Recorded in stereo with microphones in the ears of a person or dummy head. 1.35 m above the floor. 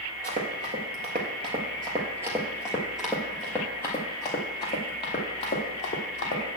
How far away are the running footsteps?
About 1.8 m.